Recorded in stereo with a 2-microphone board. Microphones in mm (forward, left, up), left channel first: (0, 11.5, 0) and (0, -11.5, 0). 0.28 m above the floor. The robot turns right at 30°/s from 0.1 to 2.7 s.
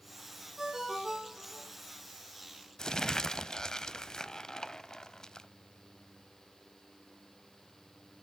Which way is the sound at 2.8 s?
25° left (ahead or behind).